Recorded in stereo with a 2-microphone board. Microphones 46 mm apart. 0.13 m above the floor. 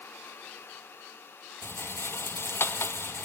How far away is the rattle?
About 0.8 m.